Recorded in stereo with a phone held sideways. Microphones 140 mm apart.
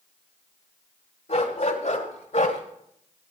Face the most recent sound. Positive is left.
turn(degrees=60)  # may be behind; listen again after turning